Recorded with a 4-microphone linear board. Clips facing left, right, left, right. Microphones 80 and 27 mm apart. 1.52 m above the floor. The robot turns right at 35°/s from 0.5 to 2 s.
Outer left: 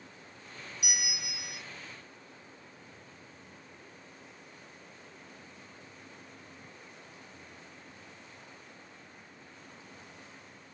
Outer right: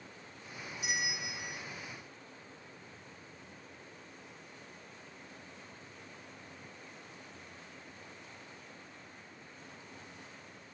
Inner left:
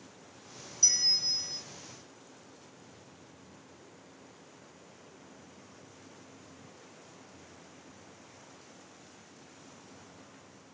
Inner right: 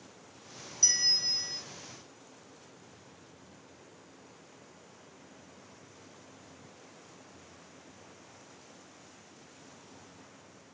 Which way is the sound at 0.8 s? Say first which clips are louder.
Outer right 4 dB, even; 30° right (ahead or behind).